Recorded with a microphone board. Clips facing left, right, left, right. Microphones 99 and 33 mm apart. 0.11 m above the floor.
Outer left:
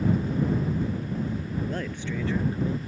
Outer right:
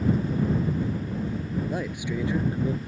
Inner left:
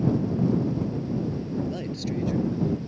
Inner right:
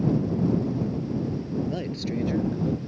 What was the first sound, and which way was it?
A man speaking, 10° right (ahead or behind).